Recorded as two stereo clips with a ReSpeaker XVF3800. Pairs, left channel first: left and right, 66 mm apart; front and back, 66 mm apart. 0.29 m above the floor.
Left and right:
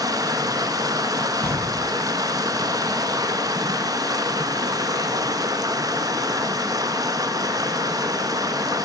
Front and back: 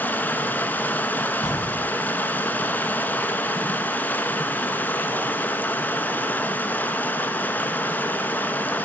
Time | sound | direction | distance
0.0 | running water | 65° right | 0.8 m
1.4 | an explosion | 15° left | 1.0 m